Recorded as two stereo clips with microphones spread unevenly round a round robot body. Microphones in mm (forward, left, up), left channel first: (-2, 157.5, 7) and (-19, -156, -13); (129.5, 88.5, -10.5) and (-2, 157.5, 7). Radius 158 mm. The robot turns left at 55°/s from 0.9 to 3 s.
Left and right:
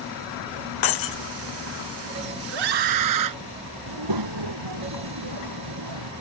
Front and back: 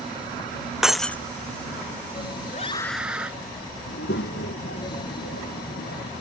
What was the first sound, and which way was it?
Breaking glass, 65° left.